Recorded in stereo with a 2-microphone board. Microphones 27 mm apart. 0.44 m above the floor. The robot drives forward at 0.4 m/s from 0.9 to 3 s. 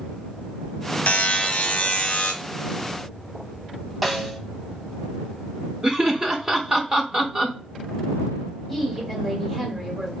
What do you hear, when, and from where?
1.1 s a buzzer: 75° left (ahead or behind), 0.7 m; by 2.3 s 45° left (ahead or behind), 1.0 m
4.0 s a snare drum: 5° left (ahead or behind), 0.6 m
5.8 s laughter: 25° right (ahead or behind), 0.8 m
8.7 s a woman speaking: centre (ahead or behind), 1.4 m